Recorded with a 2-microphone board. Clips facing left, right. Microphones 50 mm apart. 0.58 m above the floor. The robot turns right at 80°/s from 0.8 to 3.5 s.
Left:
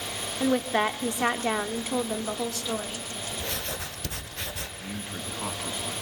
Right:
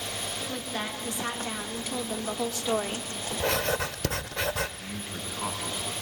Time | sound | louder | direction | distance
0.4 | a woman speaking | left 13 dB | 55° left | 1.0 m
3.4 | writing | right 11 dB | 70° right (ahead or behind) | 1.0 m
4.8 | a man speaking | left 1 dB | 5° right (ahead or behind) | 5 m